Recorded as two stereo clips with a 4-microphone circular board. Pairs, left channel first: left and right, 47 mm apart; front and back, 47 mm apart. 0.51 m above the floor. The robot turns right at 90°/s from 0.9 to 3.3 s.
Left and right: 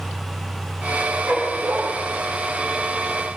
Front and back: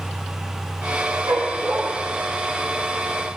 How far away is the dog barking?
About 7.5 m.